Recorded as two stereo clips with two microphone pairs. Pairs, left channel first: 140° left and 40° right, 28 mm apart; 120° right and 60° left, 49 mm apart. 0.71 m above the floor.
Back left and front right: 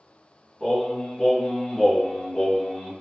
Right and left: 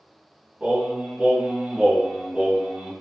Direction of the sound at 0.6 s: 130° left.